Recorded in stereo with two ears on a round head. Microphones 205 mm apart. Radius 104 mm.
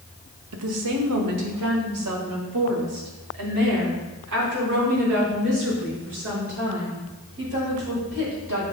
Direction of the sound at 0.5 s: 80° right.